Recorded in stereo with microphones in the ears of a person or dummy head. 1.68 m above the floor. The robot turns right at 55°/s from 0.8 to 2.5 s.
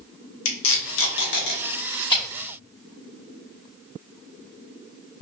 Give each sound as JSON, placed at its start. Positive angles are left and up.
{"t": 0.5, "sound": "tape being pulled", "side_deg": 75, "distance_m": 1.3}